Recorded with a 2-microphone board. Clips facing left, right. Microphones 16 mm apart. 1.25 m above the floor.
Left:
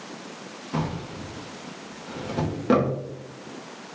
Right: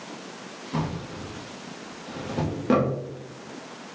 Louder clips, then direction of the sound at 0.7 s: Left 1 dB; 10° left (ahead or behind).